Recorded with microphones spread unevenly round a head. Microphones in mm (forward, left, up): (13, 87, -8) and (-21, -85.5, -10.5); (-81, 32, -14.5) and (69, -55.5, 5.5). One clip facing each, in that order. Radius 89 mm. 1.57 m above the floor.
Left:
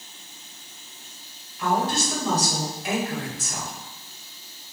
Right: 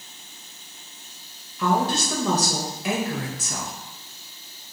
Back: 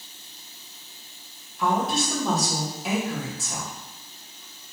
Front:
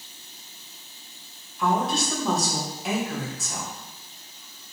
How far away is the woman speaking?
About 2 m.